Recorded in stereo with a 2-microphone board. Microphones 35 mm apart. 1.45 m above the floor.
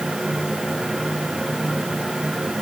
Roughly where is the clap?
No clap in this recording.